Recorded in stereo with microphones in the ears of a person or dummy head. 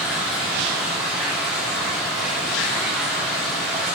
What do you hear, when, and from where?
0.0 s running water: centre (ahead or behind), 1.7 m